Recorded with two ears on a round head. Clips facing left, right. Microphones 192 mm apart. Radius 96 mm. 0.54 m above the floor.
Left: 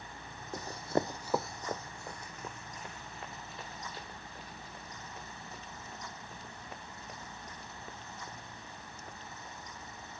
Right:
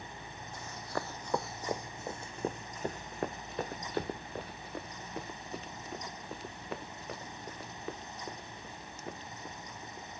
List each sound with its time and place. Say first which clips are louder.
0.5 s running footsteps: left 7 dB; 40° left (ahead or behind); by 10.2 s 65° right (ahead or behind)